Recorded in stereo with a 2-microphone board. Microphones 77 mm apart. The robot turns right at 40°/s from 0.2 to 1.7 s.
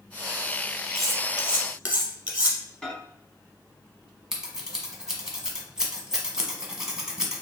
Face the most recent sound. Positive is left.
turn(degrees=-10)  # may be behind; listen again after turning